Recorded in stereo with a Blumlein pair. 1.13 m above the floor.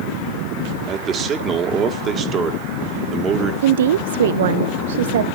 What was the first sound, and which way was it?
A man speaking, 25° right.